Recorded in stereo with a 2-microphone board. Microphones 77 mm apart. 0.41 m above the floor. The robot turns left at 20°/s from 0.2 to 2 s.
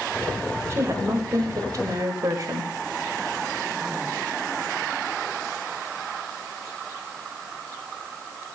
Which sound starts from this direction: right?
A woman speaking, at 0.7 s.